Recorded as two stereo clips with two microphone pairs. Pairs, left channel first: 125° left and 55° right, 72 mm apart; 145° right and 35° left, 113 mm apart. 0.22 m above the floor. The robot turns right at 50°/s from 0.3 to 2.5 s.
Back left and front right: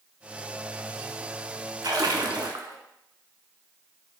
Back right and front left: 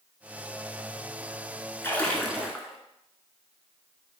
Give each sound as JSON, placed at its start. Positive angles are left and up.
{"t": 1.8, "sound": "a splash", "azimuth_deg": -75, "distance_m": 0.7}